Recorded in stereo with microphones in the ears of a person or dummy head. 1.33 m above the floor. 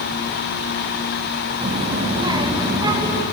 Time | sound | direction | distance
1.6 | a child speaking | 40° right (ahead or behind) | 1.8 m